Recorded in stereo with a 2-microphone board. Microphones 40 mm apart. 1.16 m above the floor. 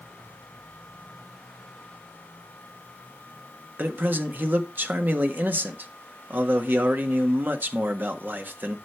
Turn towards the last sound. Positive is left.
turn(degrees=-50)  # may be behind; listen again after turning